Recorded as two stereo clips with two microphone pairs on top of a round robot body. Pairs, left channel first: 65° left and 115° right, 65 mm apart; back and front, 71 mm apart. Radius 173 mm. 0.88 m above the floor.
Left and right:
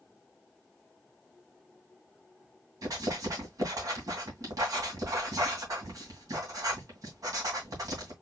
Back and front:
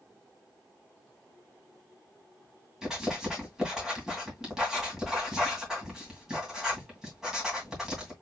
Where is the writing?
85° right, 2.5 m.